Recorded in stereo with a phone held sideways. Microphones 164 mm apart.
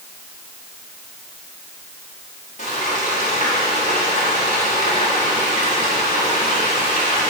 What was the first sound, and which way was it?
Frying, 50° left (ahead or behind).